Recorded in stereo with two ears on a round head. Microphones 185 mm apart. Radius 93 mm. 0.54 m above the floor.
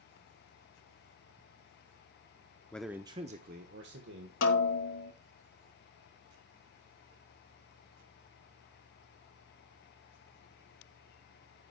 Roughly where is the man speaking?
Centre.